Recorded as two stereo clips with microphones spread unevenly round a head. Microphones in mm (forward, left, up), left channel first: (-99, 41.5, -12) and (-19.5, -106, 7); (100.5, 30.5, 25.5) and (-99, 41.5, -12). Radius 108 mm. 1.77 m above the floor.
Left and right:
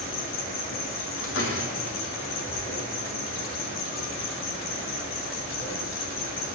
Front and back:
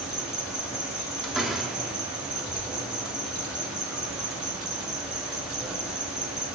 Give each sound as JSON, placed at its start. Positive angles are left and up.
{"t": 0.0, "sound": "an insect", "azimuth_deg": 90, "distance_m": 4.5}
{"t": 1.2, "sound": "a door slam", "azimuth_deg": 85, "distance_m": 3.5}